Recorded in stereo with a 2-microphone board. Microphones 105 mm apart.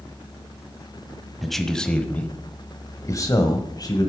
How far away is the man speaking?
About 1.3 m.